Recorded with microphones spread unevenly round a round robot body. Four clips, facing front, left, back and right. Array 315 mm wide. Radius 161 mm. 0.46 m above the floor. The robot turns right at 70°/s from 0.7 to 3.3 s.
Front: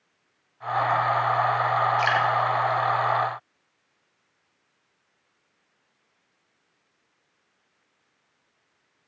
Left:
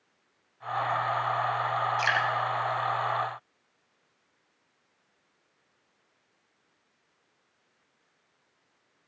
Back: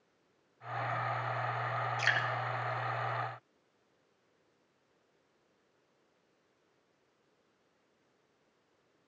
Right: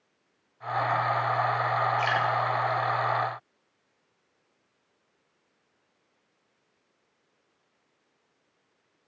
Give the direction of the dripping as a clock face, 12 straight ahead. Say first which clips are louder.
Right 1 dB, front 12 dB; 7 o'clock.